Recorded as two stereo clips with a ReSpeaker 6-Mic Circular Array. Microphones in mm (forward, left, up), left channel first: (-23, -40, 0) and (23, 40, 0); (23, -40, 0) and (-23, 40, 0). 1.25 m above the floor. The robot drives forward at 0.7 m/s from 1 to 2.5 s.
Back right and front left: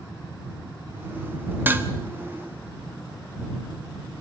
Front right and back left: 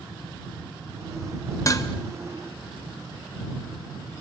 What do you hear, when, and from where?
1.7 s dishes clattering: 10° right, 1.1 m